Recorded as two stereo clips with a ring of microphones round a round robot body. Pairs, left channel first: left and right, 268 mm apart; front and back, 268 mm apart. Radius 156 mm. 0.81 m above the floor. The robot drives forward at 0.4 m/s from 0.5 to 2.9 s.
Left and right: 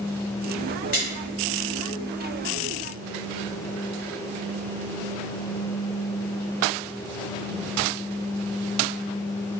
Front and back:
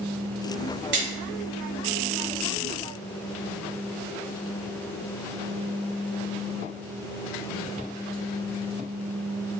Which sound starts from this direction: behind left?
A splash, at 0.9 s.